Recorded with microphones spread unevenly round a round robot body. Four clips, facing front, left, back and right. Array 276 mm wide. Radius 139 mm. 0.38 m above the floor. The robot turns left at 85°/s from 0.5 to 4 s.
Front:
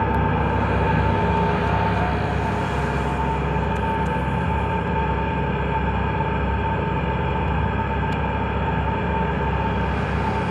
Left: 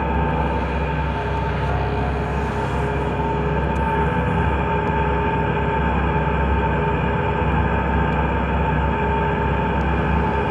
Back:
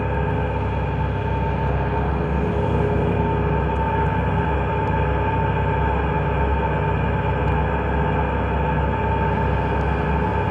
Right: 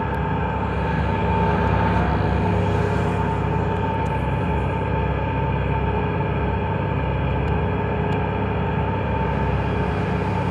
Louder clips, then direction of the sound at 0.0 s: Left 3 dB, front 2 dB; 30° left.